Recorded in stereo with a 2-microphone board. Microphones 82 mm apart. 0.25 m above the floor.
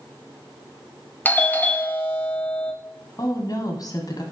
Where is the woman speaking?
50° left (ahead or behind), 1.4 m.